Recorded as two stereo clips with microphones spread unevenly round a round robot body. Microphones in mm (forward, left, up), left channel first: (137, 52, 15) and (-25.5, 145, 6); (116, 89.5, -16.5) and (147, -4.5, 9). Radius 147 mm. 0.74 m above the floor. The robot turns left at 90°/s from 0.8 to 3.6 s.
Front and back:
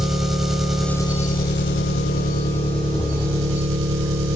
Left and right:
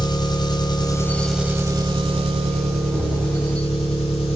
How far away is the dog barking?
No dog barking in this recording.